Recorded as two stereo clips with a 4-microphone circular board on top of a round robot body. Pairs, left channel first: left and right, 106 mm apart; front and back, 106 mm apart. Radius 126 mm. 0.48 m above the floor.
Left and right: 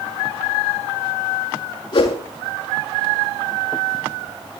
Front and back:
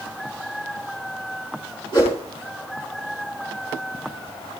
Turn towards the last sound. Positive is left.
turn(degrees=45)